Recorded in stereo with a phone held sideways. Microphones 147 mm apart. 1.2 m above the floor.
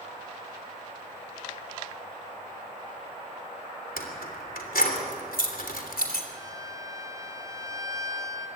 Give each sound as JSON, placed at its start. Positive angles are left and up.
{"t": 4.0, "sound": "keys jangling", "side_deg": 80, "distance_m": 3.0}
{"t": 6.3, "sound": "a violin", "side_deg": -25, "distance_m": 2.5}